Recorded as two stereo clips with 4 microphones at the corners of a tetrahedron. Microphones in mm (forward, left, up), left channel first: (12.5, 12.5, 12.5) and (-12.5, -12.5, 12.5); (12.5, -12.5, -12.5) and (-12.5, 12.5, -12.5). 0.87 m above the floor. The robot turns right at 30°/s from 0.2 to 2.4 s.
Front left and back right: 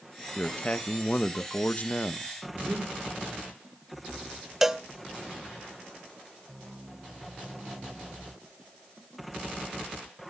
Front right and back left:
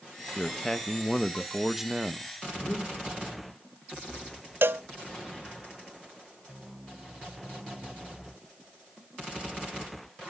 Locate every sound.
0.4 s a man speaking: 15° left, 0.8 m; by 2.3 s 75° left, 0.8 m
2.5 s breathing: 90° right, 3.5 m
4.6 s a cowbell: 145° left, 0.8 m